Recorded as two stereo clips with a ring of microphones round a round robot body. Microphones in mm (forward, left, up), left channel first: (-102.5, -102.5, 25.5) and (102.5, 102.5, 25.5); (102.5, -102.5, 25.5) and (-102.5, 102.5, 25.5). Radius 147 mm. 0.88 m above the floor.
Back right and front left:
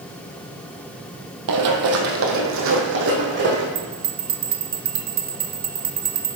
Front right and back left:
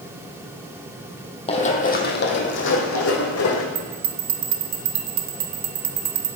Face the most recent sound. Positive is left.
turn(degrees=105)